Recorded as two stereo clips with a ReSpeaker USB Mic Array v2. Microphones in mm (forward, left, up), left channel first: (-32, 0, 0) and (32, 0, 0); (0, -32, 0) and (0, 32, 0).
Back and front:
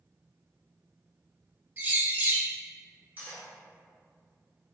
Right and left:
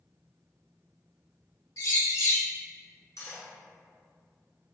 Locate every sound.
1.8 s a bird: 60° right, 0.8 m
3.2 s cutlery clinking: 70° right, 1.5 m